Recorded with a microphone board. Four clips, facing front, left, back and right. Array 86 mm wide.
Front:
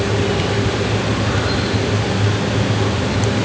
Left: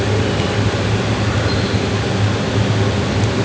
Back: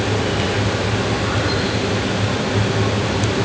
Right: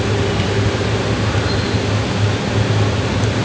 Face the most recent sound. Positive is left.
No sound to turn to.